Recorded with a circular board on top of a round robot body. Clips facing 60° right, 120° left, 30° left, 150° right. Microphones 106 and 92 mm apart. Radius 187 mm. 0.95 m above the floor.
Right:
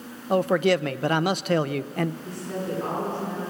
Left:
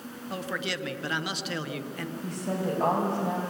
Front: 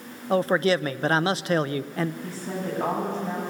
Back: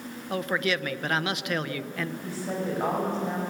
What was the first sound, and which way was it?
A man speaking, 25° right.